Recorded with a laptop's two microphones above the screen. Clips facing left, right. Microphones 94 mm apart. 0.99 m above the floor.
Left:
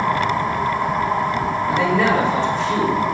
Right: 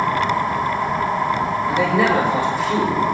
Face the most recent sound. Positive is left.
turn(degrees=-5)  # may be behind; listen again after turning